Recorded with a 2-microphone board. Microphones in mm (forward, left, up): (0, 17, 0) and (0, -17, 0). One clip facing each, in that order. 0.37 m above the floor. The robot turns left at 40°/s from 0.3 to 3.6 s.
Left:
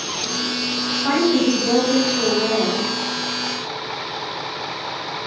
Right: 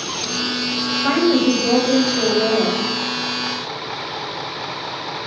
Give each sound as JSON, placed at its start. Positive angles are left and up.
{"t": 1.0, "sound": "a woman speaking", "azimuth_deg": -70, "distance_m": 1.7}